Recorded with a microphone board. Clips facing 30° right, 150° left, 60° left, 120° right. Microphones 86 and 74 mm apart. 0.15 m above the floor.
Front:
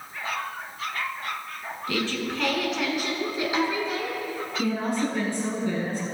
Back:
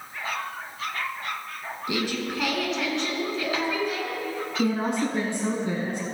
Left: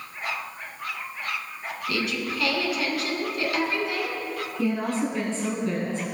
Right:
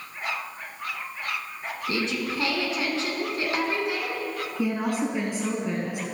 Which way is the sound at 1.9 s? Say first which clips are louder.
Even, right 1 dB; 155° right.